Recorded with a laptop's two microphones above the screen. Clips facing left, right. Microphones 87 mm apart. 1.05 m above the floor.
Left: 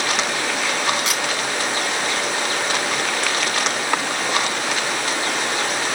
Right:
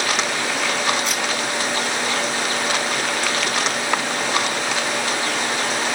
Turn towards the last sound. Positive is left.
turn(degrees=80)